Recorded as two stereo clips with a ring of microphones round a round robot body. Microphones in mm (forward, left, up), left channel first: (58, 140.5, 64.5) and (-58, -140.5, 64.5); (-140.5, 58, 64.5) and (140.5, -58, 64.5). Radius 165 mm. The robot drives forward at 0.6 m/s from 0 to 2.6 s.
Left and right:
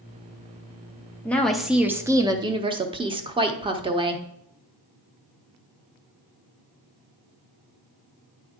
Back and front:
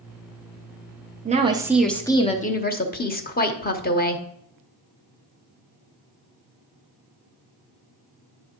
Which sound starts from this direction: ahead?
A woman speaking, at 1.2 s.